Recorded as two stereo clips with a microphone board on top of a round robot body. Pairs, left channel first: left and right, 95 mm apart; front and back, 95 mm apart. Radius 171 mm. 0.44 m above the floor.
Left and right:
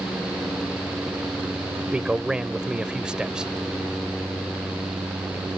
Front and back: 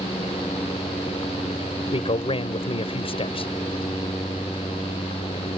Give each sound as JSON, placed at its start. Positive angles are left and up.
{"t": 1.9, "sound": "a man speaking", "azimuth_deg": -5}